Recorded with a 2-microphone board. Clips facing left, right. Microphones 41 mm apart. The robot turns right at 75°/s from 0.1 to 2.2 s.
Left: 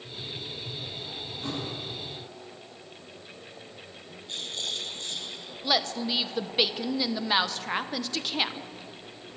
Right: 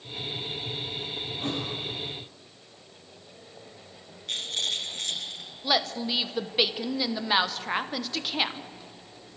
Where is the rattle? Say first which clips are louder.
Right 4 dB; 75° right (ahead or behind), 4.5 m.